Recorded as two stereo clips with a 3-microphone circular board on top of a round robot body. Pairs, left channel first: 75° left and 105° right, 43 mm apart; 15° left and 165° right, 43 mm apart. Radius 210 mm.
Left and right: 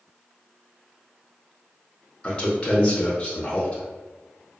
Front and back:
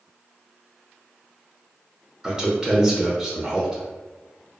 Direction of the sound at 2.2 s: 130° left.